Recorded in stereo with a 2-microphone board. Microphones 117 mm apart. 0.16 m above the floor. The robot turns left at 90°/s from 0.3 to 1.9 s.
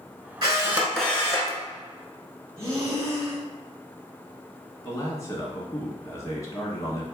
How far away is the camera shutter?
About 1.1 m.